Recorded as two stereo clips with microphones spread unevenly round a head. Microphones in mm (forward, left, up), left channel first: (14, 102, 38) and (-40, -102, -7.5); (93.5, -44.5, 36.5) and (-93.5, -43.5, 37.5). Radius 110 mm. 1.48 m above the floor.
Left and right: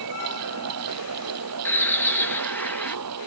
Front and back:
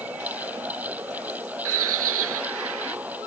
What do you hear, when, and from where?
0.0 s a fan: 100° right
1.6 s a bird: 155° left